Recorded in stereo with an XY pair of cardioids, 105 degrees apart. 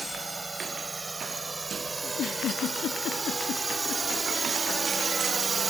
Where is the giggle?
65° left.